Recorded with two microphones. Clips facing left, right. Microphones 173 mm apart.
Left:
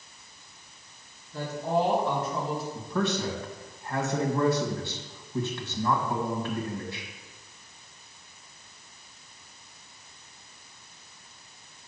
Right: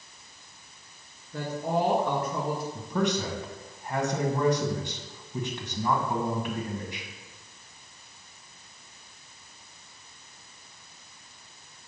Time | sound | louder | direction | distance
1.3 | a woman speaking | left 1 dB | 55° right (ahead or behind) | 2.5 m
2.8 | a man speaking | right 1 dB | 15° right (ahead or behind) | 1.4 m